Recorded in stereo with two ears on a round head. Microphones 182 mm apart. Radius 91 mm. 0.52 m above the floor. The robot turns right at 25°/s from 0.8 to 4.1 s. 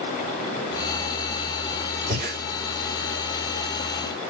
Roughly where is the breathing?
Right.